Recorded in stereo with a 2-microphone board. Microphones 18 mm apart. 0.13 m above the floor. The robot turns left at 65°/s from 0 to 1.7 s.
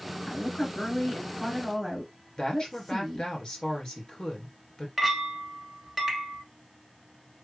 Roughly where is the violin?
No violin in this recording.